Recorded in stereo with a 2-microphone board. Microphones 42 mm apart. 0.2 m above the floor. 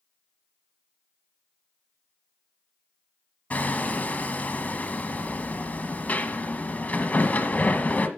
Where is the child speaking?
No child speaking in this recording.